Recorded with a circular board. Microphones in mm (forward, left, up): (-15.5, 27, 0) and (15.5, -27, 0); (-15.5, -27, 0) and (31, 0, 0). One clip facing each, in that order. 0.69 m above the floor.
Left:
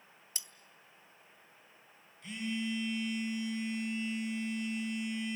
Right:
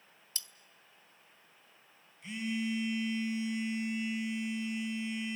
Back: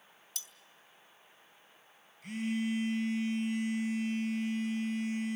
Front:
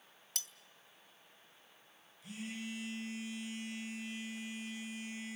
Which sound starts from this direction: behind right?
A phone buzzing, at 2.2 s.